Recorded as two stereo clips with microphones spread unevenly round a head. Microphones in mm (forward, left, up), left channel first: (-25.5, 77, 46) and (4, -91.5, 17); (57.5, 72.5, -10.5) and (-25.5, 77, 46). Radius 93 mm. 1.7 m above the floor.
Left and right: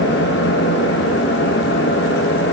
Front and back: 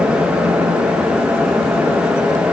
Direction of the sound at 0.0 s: 115° left.